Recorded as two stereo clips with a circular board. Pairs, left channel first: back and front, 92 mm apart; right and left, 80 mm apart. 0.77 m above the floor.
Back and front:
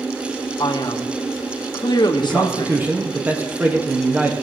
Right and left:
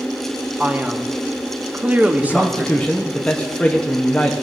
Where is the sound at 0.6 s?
155° left, 1.1 m.